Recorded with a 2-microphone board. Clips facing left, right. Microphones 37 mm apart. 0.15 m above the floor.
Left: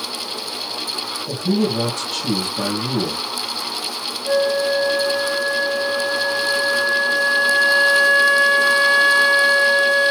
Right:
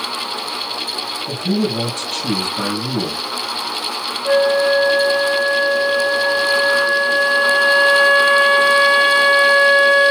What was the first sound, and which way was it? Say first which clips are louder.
A man speaking: even; 50° right (ahead or behind).